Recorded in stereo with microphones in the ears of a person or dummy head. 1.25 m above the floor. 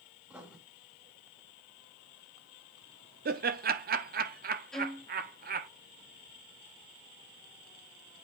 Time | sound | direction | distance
0.3 | writing | 10° right (ahead or behind) | 2 m
3.2 | laughter | 40° right (ahead or behind) | 0.7 m
4.7 | a violin | 5° left (ahead or behind) | 0.8 m